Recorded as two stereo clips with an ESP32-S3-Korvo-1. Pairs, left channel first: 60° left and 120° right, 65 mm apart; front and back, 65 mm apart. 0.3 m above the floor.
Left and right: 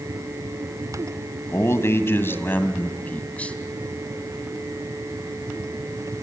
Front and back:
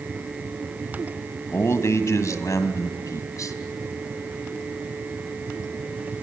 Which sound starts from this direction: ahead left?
A man speaking, at 1.5 s.